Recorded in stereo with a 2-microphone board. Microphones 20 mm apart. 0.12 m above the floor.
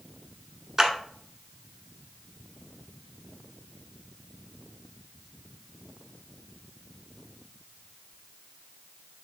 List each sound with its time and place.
0.8 s a clap: 20° right (ahead or behind), 0.9 m